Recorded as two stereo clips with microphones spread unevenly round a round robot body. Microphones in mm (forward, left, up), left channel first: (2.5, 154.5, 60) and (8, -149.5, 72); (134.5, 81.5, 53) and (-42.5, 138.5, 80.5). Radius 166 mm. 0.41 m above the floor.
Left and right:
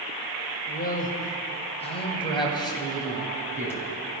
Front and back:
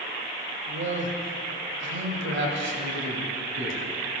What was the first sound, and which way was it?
A man speaking, 150° left.